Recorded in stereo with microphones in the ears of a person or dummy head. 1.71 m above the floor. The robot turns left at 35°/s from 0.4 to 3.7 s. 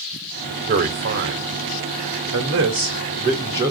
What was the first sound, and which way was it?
A man speaking, 45° right (ahead or behind).